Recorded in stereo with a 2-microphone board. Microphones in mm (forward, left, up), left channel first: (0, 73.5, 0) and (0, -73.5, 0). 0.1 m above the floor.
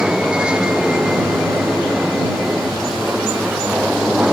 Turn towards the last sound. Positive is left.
turn(degrees=-5)  # may be behind; listen again after turning